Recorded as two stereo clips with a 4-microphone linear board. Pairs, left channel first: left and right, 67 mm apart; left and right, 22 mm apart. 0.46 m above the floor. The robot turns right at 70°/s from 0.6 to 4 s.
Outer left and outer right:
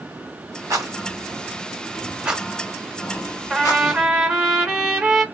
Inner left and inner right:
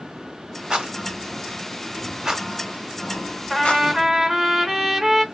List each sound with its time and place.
0.7 s a rattle: 50° right (ahead or behind), 1.5 m; by 3.8 s 70° left (ahead or behind), 1.5 m
3.5 s a trumpet: 165° left, 2 m; by 5.2 s 160° right, 2 m